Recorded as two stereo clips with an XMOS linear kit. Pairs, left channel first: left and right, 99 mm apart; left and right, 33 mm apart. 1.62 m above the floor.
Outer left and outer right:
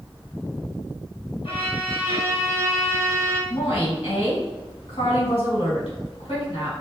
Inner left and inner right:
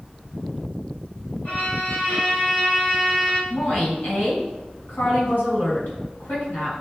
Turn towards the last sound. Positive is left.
turn(degrees=75)  # may be behind; listen again after turning